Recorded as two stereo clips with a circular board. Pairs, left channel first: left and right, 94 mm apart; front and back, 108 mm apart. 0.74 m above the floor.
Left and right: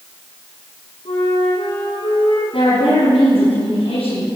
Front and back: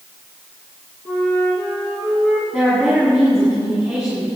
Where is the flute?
75° left, 6.5 m.